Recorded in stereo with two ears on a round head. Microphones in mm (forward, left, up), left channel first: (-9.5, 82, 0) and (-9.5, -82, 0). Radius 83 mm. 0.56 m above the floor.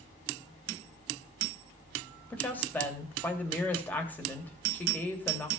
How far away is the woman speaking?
About 3 m.